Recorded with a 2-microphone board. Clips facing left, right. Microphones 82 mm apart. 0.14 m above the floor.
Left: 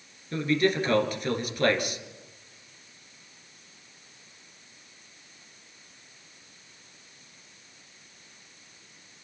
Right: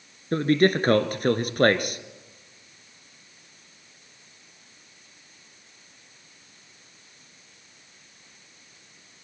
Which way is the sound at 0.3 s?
50° right (ahead or behind).